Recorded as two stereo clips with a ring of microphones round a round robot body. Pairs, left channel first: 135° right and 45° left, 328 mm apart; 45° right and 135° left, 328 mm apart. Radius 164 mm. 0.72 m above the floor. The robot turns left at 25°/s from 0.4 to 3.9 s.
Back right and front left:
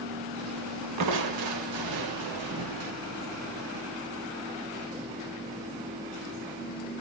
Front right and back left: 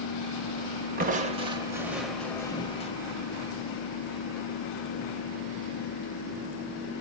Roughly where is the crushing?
Left.